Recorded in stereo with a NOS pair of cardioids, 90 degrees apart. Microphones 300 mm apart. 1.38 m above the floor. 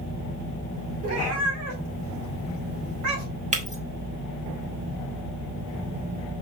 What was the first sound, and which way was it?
A cat meowing, 55° right.